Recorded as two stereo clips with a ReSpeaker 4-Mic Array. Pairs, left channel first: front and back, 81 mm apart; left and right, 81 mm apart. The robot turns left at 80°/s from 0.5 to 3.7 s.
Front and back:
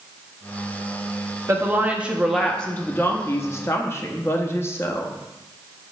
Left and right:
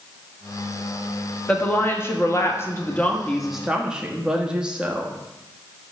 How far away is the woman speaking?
About 0.8 m.